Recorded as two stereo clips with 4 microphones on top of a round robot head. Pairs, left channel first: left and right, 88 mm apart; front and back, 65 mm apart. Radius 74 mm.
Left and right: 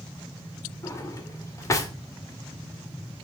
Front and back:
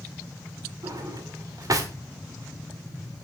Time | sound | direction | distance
0.8 | a drawer | 145° left | 2 m